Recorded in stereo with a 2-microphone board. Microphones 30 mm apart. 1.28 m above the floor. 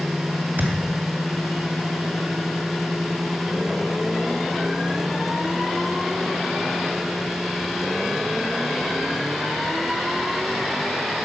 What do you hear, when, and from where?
0.6 s a thud: 65° right (ahead or behind), 2.5 m